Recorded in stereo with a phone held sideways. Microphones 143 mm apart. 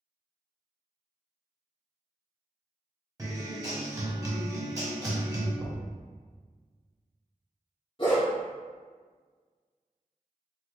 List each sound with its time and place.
3.2 s a guitar: 25° right (ahead or behind), 0.9 m
5.6 s knocking: 35° right (ahead or behind), 0.9 m
8.0 s a dog barking: 35° left (ahead or behind), 1.9 m